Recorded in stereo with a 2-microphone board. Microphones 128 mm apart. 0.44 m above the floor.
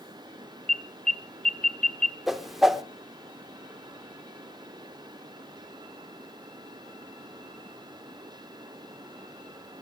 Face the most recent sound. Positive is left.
turn(degrees=-5)  # may be behind; listen again after turning